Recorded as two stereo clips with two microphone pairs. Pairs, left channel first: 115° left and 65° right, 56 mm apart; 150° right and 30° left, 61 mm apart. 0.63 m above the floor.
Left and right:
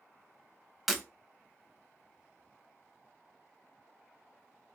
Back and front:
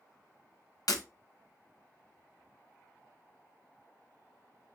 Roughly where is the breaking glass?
Behind right.